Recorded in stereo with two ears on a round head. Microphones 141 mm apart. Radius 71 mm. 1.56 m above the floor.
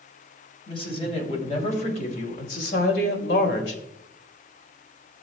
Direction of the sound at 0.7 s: 35° left (ahead or behind).